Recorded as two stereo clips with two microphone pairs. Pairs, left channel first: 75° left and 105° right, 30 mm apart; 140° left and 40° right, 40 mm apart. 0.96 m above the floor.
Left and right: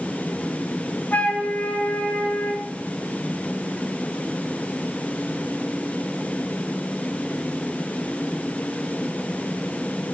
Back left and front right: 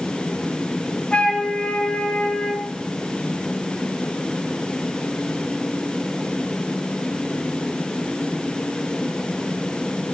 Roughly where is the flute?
Left.